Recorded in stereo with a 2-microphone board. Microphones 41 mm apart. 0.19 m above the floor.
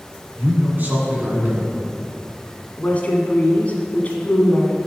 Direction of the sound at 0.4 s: 45° right (ahead or behind).